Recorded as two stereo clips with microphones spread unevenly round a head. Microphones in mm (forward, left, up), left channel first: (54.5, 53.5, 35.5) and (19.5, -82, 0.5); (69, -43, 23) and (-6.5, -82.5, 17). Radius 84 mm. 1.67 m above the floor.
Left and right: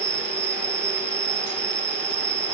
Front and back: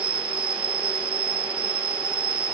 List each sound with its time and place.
0.0 s an insect: 160° right